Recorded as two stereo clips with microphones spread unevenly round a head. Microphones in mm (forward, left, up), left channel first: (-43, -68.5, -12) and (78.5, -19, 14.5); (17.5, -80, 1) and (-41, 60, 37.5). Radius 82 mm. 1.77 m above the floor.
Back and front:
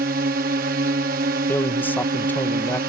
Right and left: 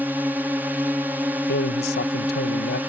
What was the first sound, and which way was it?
A drone, 25° left.